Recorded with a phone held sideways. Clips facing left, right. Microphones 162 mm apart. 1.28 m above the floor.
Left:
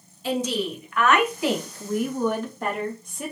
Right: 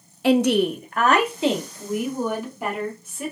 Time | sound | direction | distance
0.2 | a woman speaking | 85° right | 0.5 m